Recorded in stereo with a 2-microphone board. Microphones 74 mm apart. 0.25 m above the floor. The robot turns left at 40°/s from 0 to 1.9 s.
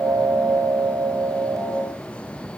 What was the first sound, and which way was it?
Only background noise.